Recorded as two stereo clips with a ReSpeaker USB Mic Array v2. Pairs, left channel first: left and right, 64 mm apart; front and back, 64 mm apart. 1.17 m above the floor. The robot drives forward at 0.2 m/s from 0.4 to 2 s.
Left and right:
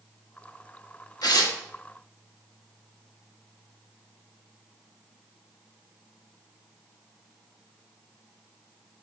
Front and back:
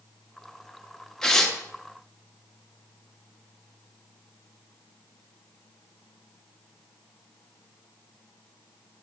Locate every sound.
1.2 s tearing paper: 80° left, 1.2 m; by 1.6 s 85° left, 1.2 m